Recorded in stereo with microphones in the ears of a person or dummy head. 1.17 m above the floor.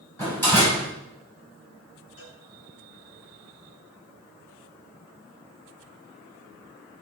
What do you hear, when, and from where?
0.2 s a door slam: 15° left (ahead or behind), 6.5 m
2.2 s a cowbell: 75° left (ahead or behind), 4.5 m